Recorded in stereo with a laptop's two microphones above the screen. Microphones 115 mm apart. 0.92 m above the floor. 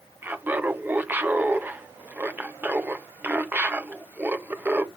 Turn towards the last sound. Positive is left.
turn(degrees=-15)  # may be behind; listen again after turning